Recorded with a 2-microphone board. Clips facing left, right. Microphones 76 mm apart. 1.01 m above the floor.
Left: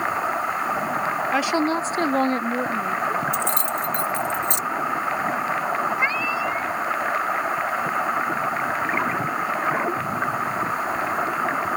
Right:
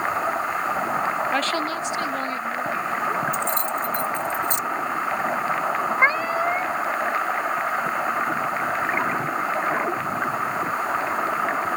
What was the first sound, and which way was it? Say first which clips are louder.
A woman speaking: left 3 dB; 5° left (ahead or behind).